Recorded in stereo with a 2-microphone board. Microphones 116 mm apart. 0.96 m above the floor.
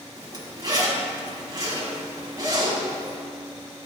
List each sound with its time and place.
0.2 s a zipper: 35° right (ahead or behind), 1.4 m